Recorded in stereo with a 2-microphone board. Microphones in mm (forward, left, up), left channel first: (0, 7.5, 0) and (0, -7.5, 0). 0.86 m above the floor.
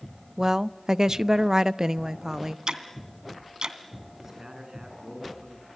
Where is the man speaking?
50° right (ahead or behind), 7.5 m.